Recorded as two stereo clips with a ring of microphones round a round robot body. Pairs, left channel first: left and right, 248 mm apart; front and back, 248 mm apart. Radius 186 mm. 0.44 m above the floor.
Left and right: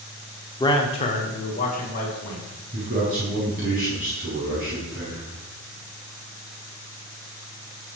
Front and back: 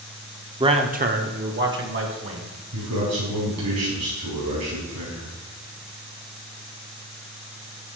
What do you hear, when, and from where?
0.6 s a man speaking: 135° left, 0.9 m; by 2.4 s 150° left, 2.5 m
2.7 s a man speaking: 155° right, 5 m